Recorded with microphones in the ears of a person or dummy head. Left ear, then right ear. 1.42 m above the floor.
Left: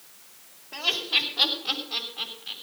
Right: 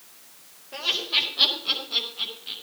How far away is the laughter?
About 4.5 m.